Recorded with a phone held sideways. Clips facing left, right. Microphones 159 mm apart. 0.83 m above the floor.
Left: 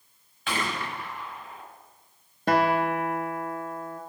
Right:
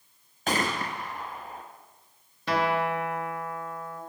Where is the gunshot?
40° right (ahead or behind), 0.6 m.